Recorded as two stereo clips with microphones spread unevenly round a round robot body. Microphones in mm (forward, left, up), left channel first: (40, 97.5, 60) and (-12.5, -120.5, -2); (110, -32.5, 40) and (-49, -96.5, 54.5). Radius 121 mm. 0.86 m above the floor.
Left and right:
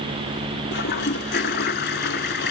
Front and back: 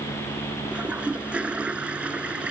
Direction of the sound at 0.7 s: 120° left.